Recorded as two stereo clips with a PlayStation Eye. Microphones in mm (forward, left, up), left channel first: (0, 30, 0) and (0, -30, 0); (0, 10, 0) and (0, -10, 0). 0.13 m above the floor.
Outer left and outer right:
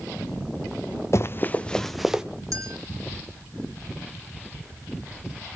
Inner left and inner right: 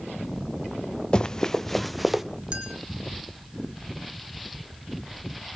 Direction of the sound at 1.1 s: 50° left (ahead or behind).